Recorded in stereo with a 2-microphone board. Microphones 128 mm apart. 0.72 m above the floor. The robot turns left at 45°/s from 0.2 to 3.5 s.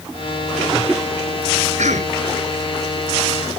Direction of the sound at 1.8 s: 85° right.